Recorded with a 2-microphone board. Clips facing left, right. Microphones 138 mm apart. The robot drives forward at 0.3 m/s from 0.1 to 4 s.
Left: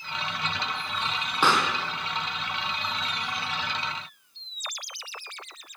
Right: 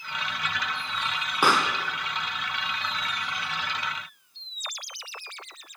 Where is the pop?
10° right (ahead or behind), 1.7 m.